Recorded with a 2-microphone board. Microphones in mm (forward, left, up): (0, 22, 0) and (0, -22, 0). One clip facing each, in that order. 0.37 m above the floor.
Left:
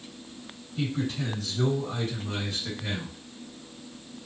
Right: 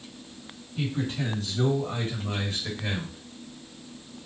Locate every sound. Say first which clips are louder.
0.8 s a man speaking: even; 25° right (ahead or behind), 2 m; by 3.2 s 50° right (ahead or behind), 1.5 m